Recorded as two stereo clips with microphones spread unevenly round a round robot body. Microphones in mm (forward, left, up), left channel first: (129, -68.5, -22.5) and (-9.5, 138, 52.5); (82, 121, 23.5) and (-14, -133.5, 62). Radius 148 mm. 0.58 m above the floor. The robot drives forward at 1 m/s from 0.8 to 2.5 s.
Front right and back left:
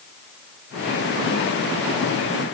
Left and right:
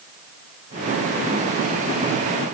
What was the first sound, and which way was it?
Only background noise.